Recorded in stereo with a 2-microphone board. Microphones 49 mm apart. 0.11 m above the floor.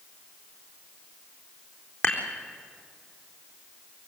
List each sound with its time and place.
2.0 s dishes clattering: 55° left (ahead or behind), 4 m